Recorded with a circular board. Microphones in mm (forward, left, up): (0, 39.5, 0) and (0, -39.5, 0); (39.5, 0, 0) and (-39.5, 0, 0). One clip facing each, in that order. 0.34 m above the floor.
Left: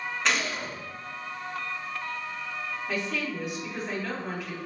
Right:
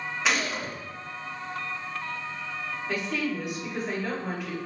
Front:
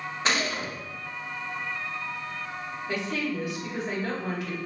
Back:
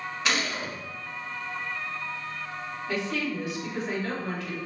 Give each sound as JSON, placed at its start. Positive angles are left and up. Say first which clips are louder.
{"t": 0.2, "sound": "a gunshot", "louder": "right 1 dB, front 1 dB", "azimuth_deg": -10, "distance_m": 0.7}
{"t": 2.9, "sound": "a woman speaking", "louder": "right 3 dB, even", "azimuth_deg": -5, "distance_m": 1.3}